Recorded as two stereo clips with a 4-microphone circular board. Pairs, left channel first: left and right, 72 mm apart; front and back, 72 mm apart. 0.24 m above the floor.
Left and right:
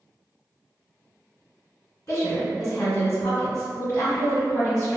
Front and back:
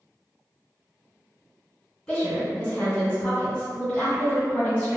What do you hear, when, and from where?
2.1 s a woman speaking: 65° left, 2.0 m